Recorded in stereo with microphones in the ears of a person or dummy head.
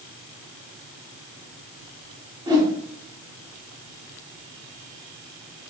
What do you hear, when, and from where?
2.5 s a whoosh: 20° right (ahead or behind), 0.8 m